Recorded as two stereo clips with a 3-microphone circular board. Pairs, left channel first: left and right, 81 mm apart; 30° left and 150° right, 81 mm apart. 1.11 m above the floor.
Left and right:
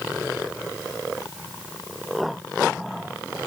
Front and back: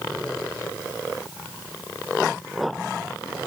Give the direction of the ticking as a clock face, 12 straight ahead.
No ticking in this recording.